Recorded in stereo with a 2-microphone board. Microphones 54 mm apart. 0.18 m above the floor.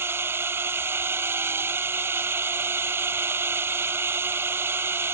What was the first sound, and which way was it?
A drone, 50° right (ahead or behind).